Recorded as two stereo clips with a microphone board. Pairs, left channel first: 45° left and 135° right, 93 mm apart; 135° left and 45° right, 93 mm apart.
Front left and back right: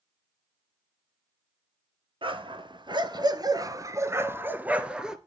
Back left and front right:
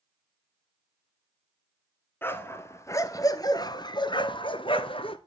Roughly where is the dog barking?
Behind.